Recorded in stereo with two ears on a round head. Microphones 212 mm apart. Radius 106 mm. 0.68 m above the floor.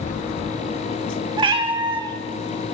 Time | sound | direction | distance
1.4 | a cat meowing | 20° right (ahead or behind) | 0.5 m